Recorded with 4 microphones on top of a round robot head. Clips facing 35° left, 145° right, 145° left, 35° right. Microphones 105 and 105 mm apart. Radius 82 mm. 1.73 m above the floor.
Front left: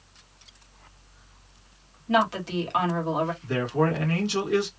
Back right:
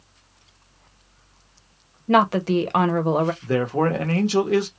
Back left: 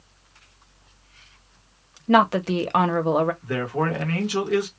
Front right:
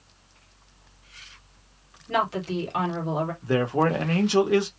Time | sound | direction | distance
2.1 | a woman speaking | 175° left | 0.7 m
3.4 | a man speaking | 100° right | 1.0 m